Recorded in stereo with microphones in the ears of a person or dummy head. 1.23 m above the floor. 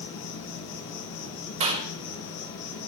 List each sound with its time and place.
0.0 s an insect: 80° left, 8 m
1.6 s a clap: 30° right (ahead or behind), 4 m